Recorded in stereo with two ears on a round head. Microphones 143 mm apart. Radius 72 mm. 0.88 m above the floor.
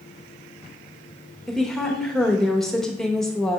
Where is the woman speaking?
Centre (ahead or behind), 1.1 m.